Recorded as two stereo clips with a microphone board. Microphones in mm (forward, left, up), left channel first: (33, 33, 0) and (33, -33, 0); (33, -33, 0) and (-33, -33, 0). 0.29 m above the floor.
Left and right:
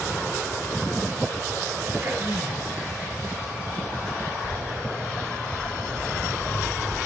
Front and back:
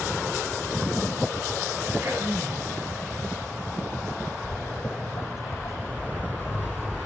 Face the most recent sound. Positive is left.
turn(degrees=55)